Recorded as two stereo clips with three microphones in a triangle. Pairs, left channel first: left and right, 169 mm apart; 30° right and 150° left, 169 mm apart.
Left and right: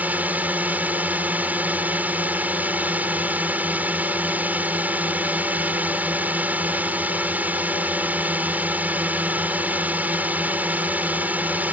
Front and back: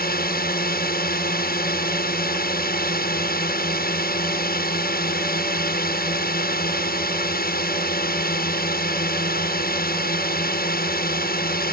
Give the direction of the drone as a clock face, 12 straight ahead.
12 o'clock.